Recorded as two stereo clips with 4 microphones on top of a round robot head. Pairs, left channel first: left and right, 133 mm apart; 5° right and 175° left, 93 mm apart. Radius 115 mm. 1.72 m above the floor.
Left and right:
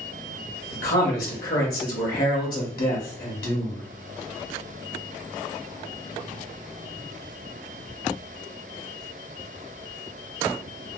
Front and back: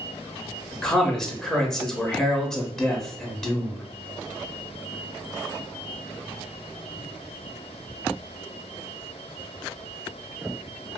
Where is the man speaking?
75° left, 0.8 m.